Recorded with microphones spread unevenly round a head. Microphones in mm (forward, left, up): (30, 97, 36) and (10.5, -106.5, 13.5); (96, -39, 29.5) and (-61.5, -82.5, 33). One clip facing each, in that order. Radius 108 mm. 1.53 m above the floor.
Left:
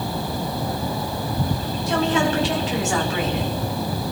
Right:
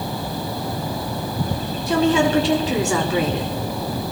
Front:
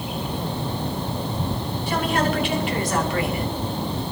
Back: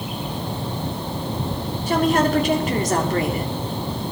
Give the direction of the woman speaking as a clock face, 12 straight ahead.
4 o'clock.